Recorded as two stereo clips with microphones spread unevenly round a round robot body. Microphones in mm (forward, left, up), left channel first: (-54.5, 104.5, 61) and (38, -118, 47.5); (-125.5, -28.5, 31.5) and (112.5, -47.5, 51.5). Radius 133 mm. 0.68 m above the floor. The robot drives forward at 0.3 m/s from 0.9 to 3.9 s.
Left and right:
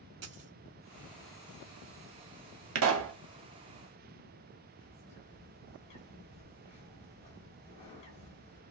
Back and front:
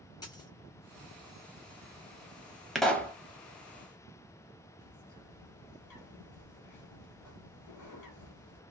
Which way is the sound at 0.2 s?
110° right.